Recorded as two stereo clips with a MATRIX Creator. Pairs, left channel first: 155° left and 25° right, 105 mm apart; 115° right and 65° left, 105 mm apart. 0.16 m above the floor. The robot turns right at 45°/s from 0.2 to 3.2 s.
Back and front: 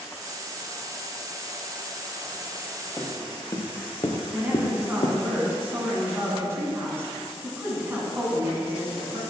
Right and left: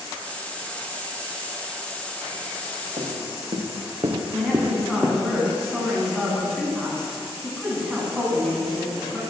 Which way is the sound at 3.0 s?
85° left.